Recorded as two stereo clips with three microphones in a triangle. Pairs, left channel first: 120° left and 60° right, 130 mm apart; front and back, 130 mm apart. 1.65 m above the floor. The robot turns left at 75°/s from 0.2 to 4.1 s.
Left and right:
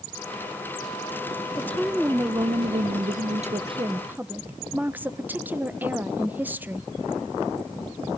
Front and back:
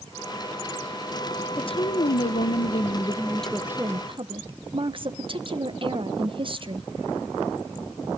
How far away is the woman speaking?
About 1.2 m.